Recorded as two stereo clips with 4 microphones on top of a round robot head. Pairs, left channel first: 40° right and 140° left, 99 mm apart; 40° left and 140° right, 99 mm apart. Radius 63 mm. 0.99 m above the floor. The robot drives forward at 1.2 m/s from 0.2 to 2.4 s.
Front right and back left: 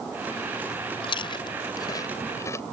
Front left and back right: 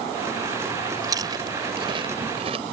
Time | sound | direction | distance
1.0 | chewing | 80° right | ?